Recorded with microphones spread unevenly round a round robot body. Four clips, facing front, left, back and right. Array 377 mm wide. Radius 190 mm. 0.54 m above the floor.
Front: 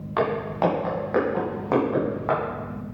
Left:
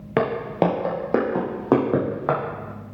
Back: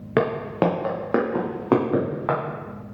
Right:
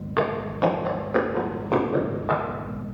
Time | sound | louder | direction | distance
0.2 | footsteps | left 2 dB, back 2 dB | 150° left | 1.9 m